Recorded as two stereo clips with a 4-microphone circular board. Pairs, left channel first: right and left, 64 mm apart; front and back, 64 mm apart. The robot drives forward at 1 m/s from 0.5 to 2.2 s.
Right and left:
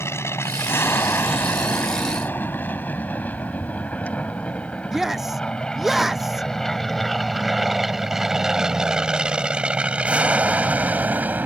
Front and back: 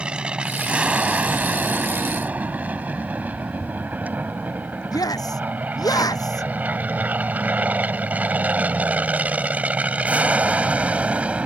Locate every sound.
0.0 s an aircraft: 115° right; by 11.5 s 125° left
4.9 s a shout: 5° left